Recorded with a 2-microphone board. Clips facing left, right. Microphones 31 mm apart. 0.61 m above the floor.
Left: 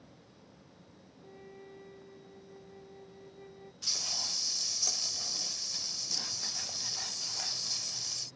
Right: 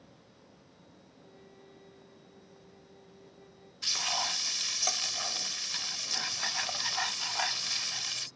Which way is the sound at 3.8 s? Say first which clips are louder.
Right 5 dB; 70° right (ahead or behind).